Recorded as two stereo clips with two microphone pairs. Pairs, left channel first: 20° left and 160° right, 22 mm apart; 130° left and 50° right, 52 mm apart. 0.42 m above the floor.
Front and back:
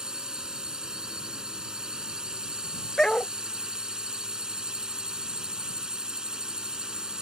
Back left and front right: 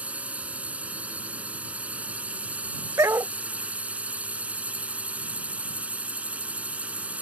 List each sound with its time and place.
0.0 s a drone: 115° right
3.0 s a dog barking: 45° right